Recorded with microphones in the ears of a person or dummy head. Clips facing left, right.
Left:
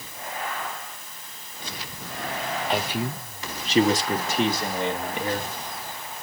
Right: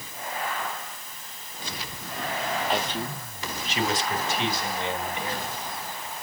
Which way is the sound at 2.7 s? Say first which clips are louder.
Left 2 dB; 5° left (ahead or behind).